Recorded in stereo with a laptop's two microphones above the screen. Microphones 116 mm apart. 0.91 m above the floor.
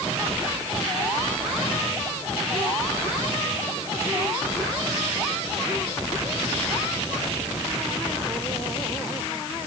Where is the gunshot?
No gunshot in this recording.